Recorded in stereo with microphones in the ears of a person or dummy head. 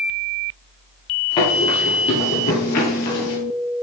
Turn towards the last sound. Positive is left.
turn(degrees=45)  # may be behind; listen again after turning